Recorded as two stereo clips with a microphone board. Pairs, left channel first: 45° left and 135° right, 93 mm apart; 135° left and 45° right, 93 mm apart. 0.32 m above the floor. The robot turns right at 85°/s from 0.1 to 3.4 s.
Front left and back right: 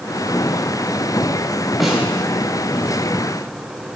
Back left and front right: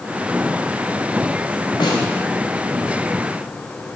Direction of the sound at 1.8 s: 135° left.